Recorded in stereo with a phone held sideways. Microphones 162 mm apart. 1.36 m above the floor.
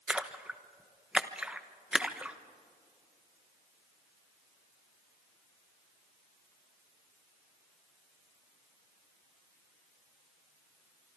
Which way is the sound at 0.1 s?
5° right (ahead or behind).